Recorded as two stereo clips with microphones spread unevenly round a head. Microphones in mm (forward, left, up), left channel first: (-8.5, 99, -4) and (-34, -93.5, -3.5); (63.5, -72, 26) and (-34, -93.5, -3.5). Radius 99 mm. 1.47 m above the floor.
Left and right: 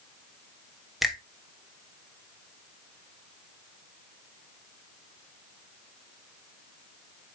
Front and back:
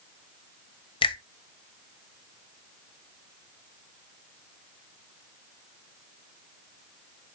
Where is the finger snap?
10° right, 1.4 m.